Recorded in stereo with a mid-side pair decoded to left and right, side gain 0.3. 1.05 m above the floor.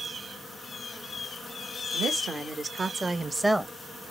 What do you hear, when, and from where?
1.9 s a woman speaking: 65° right, 1.4 m; by 3.7 s 15° right, 0.8 m